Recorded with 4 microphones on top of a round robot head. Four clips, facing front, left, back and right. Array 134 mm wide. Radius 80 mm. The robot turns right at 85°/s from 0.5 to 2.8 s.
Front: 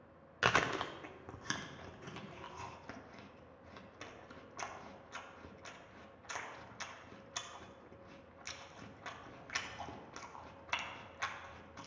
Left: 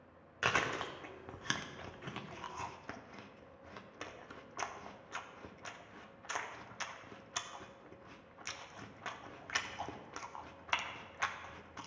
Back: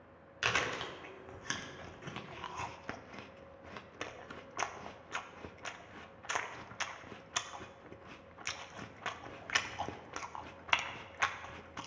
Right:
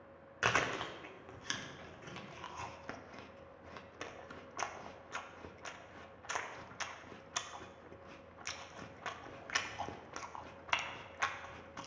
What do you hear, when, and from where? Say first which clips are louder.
0.4 s chewing: right 1 dB, front 3 dB; 10° right, 0.8 m; by 11.9 s 175° right, 0.8 m